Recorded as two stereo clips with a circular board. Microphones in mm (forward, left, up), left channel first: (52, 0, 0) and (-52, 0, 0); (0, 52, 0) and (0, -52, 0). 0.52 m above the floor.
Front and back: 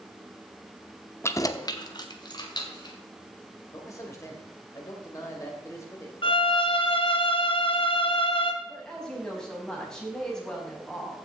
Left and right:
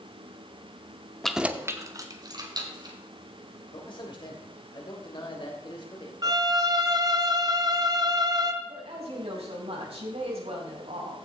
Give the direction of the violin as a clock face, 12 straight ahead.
1 o'clock.